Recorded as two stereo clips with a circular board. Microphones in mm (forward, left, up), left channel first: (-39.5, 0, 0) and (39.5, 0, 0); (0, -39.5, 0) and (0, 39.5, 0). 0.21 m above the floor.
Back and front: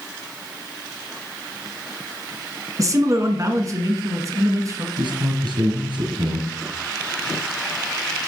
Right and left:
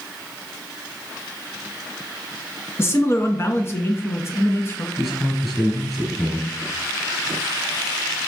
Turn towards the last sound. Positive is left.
turn(degrees=0)